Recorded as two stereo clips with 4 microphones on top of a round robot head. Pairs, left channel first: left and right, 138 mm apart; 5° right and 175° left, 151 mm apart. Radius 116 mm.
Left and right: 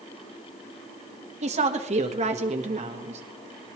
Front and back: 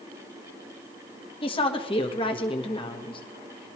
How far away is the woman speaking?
About 1.5 m.